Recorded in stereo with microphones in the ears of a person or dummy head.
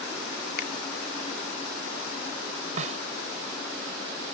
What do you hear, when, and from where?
0.6 s a finger snap: 55° left (ahead or behind)
2.8 s a snare drum: 40° right (ahead or behind)